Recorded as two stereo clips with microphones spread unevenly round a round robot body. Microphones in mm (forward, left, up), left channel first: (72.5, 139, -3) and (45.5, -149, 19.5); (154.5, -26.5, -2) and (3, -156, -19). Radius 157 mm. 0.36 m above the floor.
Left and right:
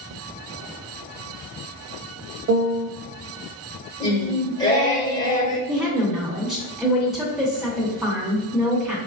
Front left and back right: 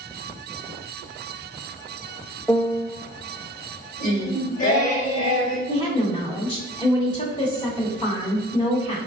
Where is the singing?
30° left, 1.6 m.